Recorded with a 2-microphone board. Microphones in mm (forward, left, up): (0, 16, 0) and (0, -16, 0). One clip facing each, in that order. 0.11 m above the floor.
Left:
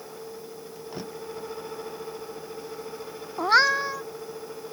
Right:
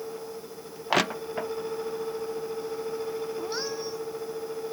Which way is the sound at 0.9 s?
75° right (ahead or behind).